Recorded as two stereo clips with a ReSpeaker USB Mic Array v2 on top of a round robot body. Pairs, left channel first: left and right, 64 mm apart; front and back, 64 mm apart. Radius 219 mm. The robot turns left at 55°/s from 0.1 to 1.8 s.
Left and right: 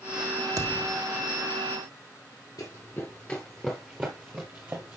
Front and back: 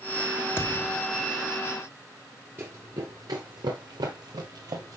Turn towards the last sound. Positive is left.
turn(degrees=-150)